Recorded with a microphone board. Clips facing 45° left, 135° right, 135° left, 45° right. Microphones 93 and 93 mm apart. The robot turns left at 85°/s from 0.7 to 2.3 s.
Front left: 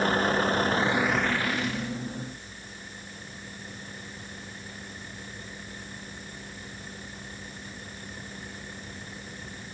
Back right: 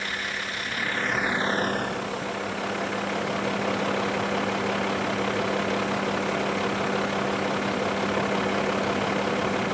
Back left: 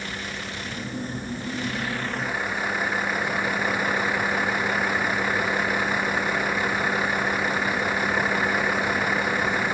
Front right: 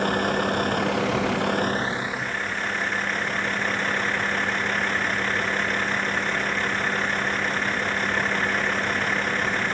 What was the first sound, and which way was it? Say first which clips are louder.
A vehicle: front left 8 dB, front right 11 dB; 5° right.